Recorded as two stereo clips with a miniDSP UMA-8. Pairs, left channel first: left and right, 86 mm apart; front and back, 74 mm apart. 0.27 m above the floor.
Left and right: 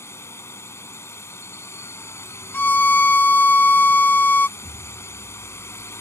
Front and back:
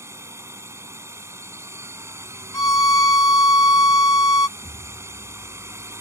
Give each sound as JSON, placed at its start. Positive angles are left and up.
{"t": 0.0, "sound": "a drone", "azimuth_deg": 140}
{"t": 2.5, "sound": "a violin", "azimuth_deg": 20}
{"t": 4.6, "sound": "an explosion", "azimuth_deg": -25}